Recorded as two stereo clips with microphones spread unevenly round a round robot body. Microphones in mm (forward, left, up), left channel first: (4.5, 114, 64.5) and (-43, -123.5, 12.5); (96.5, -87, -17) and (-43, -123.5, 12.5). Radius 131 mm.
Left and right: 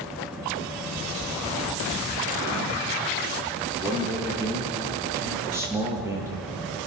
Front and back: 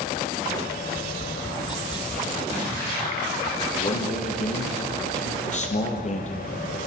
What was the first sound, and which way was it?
Tapping, 40° right.